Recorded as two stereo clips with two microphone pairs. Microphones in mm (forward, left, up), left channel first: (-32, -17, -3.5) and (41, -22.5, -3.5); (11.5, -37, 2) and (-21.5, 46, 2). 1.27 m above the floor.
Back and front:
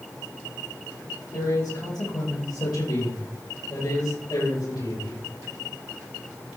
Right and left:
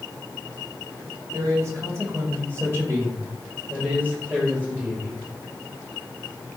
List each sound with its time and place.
1.3 s a man speaking: 165° left, 7 m; by 5.2 s straight behind, 7 m